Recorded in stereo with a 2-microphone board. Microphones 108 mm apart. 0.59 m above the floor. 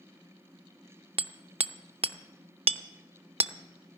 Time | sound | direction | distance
1.2 | hammering | 65° right (ahead or behind) | 0.5 m